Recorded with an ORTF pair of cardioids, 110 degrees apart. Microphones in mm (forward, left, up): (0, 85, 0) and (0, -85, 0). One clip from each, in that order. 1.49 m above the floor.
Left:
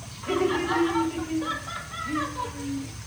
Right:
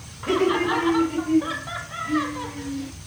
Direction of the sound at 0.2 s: 40° right.